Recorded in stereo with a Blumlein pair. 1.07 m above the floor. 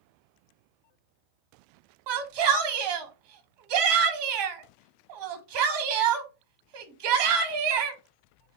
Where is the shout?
45° right, 1.1 m.